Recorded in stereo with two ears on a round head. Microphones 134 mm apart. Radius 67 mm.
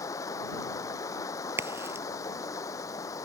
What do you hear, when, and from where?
0.0 s running water: 25° left (ahead or behind)
1.6 s a crack: 15° right (ahead or behind)